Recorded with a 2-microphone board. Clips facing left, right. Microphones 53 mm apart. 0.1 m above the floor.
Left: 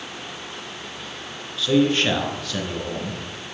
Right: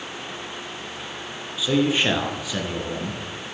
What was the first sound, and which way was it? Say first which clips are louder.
A man speaking: left 2 dB; 10° right (ahead or behind).